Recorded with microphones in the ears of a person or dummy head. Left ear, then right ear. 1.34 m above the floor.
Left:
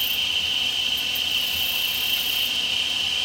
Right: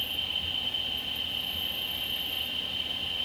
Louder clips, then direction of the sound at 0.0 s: Left 8 dB; 45° left (ahead or behind).